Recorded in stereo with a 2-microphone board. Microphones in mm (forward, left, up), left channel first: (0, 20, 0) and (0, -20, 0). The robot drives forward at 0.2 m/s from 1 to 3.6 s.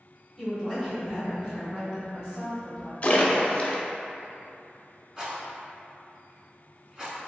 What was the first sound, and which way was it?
A woman speaking, 20° right (ahead or behind).